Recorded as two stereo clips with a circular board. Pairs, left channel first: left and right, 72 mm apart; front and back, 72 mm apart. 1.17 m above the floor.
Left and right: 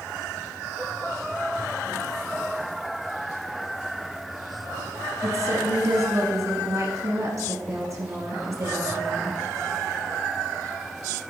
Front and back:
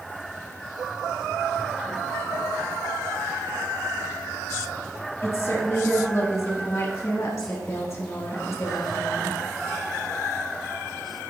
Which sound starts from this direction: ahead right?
A woman speaking, at 5.2 s.